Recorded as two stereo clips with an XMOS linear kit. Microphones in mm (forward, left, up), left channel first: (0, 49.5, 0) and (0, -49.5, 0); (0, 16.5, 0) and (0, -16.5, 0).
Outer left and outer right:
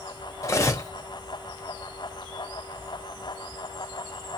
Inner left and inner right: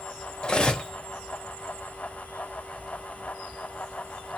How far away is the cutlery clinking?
About 0.6 m.